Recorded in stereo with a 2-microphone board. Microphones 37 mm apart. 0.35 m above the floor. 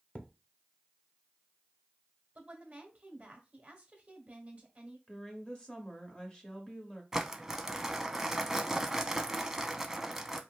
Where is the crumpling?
10° right (ahead or behind), 0.5 m.